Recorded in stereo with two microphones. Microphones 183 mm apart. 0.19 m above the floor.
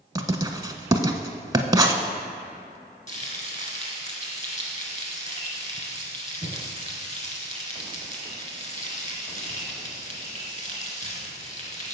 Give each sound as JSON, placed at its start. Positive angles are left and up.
{"t": 0.1, "sound": "writing", "side_deg": -20, "distance_m": 0.6}
{"t": 3.1, "sound": "frying", "side_deg": 45, "distance_m": 1.8}